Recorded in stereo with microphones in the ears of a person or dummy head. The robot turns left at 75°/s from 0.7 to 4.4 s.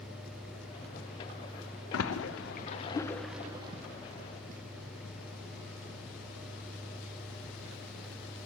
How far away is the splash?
About 0.7 m.